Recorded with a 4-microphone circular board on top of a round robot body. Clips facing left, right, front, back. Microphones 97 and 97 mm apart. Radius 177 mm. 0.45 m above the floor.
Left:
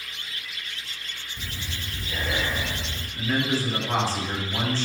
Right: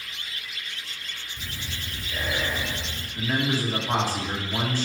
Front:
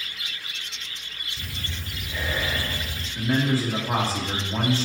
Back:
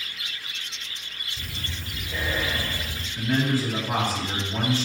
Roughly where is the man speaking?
Ahead right.